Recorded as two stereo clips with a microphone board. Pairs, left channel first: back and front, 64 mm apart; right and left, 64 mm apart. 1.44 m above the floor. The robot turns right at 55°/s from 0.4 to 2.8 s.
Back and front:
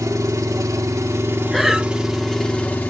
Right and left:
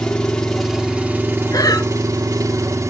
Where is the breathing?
95° right, 0.6 m; by 1.9 s 75° right, 0.6 m.